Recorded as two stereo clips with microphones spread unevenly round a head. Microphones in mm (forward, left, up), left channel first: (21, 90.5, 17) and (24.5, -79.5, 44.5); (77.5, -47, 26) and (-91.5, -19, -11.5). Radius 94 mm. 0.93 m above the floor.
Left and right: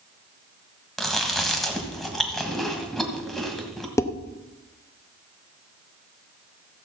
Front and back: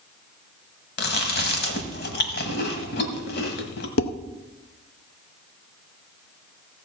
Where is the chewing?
Straight ahead, 1.4 m.